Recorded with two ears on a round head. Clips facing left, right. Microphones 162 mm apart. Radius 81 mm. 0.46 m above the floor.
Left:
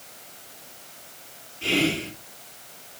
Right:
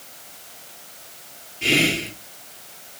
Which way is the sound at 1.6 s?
20° right (ahead or behind).